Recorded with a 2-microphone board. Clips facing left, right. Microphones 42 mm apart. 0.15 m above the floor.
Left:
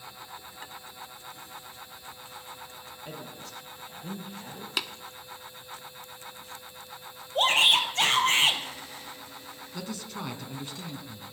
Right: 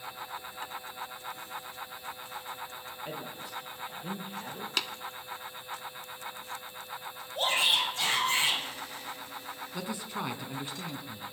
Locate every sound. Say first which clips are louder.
3.0 s a man speaking: right 1 dB; 20° right (ahead or behind), 4.5 m
4.8 s tapping: left 1 dB; 5° left (ahead or behind), 0.9 m
7.3 s a shout: left 5 dB; 70° left (ahead or behind), 4 m
9.7 s a man speaking: right 1 dB; 20° right (ahead or behind), 1.8 m